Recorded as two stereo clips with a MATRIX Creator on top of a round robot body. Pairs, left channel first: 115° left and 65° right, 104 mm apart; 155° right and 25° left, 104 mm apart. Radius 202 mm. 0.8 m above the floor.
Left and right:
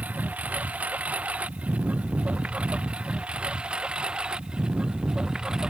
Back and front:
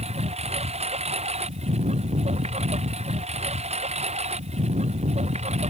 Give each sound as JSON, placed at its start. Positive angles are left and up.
{"t": 0.0, "sound": "a lawn mower", "azimuth_deg": 10}